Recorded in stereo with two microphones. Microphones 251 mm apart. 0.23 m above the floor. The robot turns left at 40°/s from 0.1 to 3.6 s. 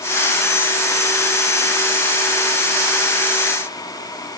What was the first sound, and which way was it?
Only background noise.